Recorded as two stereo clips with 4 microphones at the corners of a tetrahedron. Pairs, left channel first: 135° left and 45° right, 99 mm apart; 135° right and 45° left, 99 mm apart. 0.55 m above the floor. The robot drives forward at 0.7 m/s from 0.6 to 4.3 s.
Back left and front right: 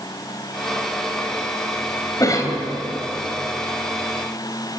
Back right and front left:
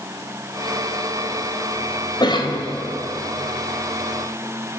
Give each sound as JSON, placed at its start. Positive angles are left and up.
{"t": 2.2, "sound": "a cough", "azimuth_deg": -175, "distance_m": 3.5}